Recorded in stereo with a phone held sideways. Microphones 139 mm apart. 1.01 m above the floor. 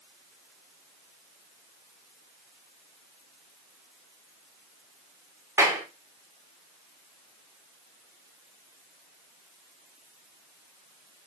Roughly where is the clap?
Centre.